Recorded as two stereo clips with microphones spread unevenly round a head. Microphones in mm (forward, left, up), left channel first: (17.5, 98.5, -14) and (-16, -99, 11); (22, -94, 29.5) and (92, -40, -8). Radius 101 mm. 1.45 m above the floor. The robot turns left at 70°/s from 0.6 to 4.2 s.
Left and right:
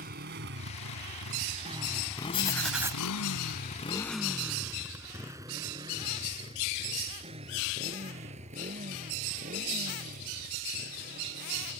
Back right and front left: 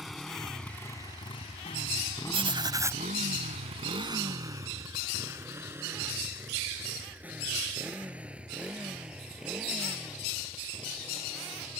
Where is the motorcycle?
55° right; by 11.8 s 50° right.